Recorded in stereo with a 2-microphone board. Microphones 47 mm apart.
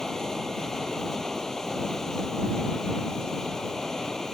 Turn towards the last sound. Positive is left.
turn(degrees=10)  # may be behind; listen again after turning